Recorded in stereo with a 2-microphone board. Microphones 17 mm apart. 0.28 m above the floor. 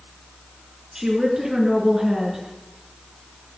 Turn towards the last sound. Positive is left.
turn(degrees=-30)  # may be behind; listen again after turning